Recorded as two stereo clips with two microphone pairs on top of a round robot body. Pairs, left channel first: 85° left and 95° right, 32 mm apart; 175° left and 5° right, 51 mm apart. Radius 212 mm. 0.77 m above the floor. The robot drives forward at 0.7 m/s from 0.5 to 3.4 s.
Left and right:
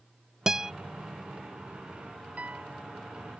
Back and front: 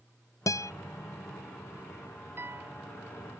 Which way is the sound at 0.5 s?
175° right.